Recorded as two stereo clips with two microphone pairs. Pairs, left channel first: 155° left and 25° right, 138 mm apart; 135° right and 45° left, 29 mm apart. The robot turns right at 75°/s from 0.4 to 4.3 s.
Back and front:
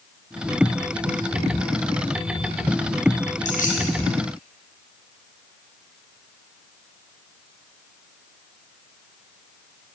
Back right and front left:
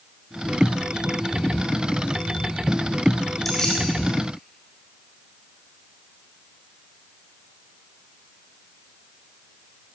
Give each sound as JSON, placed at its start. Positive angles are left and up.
{"t": 3.5, "sound": "keys jangling", "azimuth_deg": 135, "distance_m": 3.5}